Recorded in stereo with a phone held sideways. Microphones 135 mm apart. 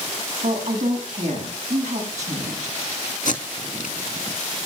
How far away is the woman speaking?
About 6.5 m.